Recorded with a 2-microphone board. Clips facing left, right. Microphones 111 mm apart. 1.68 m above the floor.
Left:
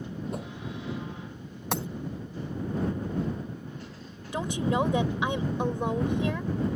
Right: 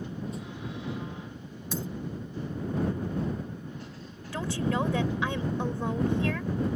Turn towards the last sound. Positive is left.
turn(degrees=20)  # may be behind; listen again after turning